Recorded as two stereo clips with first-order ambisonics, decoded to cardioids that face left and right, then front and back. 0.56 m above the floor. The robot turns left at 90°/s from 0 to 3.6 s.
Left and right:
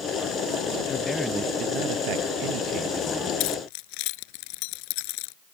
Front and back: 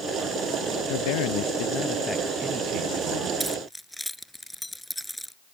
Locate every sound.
0.9 s a man speaking: 30° left; by 3.3 s 170° left
3.4 s keys jangling: 105° left; by 5.3 s 90° left